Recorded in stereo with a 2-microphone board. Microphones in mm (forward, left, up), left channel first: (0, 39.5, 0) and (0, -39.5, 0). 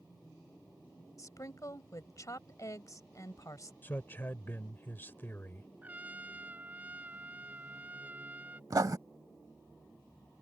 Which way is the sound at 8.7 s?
50° right (ahead or behind).